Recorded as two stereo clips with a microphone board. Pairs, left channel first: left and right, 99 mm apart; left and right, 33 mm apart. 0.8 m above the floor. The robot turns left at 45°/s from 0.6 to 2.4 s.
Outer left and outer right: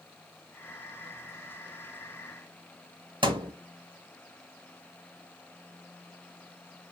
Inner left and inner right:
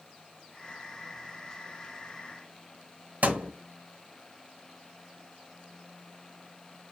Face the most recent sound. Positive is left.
turn(degrees=-55)  # may be behind; listen again after turning